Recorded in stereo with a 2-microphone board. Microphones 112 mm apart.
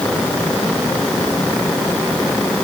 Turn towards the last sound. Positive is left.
No sound to turn to.